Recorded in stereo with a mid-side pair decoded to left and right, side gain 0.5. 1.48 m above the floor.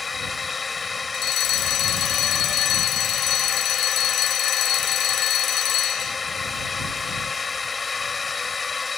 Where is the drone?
25° left.